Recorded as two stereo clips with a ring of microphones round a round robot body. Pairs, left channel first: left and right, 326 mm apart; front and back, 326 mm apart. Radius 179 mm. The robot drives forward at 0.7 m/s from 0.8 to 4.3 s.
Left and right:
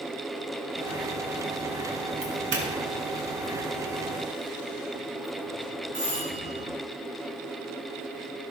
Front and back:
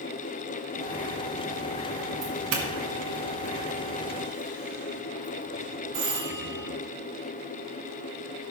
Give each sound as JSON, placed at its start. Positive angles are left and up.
{"t": 2.2, "sound": "a doorbell", "azimuth_deg": -145, "distance_m": 2.0}